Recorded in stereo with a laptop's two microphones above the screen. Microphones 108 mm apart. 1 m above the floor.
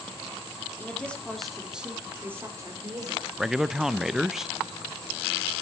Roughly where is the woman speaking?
Centre.